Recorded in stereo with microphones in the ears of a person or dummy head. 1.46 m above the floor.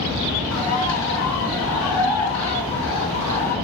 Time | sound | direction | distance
0.5 | a bird | 80° left | 5.5 m